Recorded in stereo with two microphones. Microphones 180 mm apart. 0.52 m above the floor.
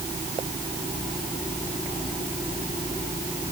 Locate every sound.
Only background noise.